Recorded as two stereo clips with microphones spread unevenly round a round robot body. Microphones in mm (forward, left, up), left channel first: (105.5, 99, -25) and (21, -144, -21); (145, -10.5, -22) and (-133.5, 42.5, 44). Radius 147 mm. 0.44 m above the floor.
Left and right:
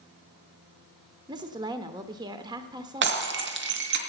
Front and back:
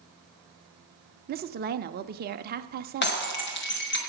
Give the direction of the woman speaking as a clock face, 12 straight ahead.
5 o'clock.